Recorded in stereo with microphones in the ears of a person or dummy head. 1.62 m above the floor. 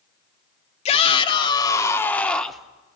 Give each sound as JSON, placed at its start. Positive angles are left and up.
{"t": 0.8, "sound": "a shout", "side_deg": 35, "distance_m": 1.8}